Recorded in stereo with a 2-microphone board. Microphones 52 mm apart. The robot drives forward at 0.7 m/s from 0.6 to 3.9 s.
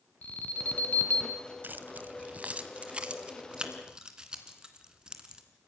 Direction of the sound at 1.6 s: 40° right (ahead or behind).